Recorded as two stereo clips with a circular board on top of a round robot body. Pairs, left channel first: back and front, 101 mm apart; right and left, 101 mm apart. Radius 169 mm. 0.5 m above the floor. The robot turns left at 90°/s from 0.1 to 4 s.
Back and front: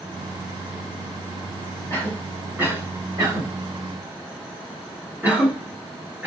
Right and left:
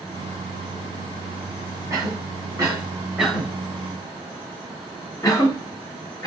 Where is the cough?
125° left, 1.7 m; by 6.3 s 65° right, 1.7 m.